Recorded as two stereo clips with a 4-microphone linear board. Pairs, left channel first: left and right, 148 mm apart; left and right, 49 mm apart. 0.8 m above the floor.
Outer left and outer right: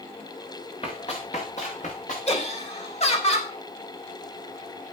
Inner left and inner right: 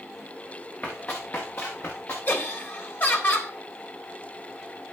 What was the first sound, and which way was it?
Running footsteps, 40° left (ahead or behind).